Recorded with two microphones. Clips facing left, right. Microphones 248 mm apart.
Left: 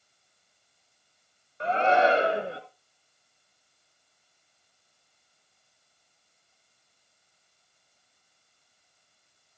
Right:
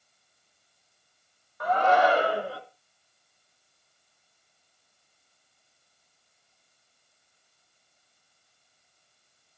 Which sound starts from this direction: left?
A shout, at 1.6 s.